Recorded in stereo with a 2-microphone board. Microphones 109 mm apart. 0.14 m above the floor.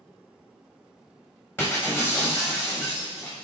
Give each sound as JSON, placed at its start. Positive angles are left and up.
{"t": 1.6, "sound": "breaking glass", "side_deg": 20, "distance_m": 3.5}